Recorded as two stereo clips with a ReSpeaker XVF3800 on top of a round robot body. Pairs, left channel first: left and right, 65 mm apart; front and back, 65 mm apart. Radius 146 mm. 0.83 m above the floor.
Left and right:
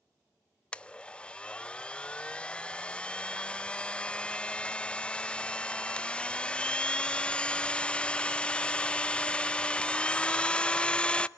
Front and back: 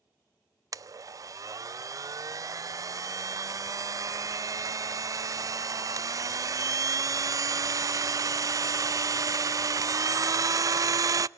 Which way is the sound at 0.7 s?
160° left.